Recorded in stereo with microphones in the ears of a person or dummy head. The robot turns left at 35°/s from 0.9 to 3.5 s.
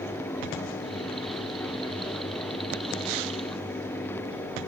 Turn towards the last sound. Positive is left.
No sound to turn to.